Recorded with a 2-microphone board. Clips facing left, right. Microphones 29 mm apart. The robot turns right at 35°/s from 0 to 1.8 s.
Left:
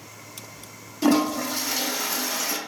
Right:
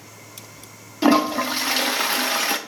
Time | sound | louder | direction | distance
1.0 | a toilet flushing | right 3 dB | 25° right (ahead or behind) | 0.5 m